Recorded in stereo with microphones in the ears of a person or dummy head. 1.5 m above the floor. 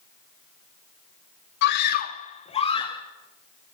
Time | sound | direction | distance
1.6 | a scream | 60° left (ahead or behind) | 0.8 m